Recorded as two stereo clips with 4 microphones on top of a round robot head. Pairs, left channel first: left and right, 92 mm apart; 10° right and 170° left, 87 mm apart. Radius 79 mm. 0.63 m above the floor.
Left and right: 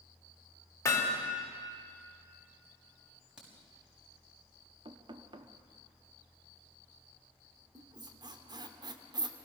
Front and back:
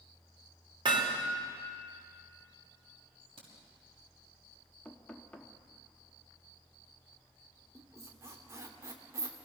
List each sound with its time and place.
0.8 s hammering: 150° left, 3 m
3.4 s a crack: 170° right, 5.5 m
4.8 s knocking: 85° right, 1.1 m
7.8 s a squeak: 130° right, 1.4 m